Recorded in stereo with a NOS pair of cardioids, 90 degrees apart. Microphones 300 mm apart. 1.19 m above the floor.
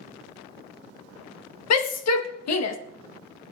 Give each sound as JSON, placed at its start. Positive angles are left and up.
{"t": 1.7, "sound": "a shout", "azimuth_deg": 70, "distance_m": 1.8}